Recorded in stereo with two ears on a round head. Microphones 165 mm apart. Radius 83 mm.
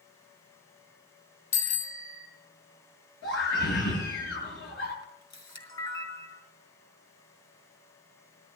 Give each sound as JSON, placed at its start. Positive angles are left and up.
{"t": 1.5, "sound": "a bicycle bell", "side_deg": 40, "distance_m": 3.5}
{"t": 3.2, "sound": "a scream", "side_deg": 75, "distance_m": 8.5}
{"t": 5.0, "sound": "a camera shutter", "side_deg": 25, "distance_m": 5.5}